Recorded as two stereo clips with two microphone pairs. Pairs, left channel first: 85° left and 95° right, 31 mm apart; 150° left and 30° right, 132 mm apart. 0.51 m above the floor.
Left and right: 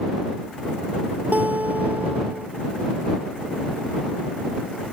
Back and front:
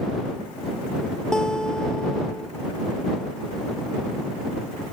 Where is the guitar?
125° right.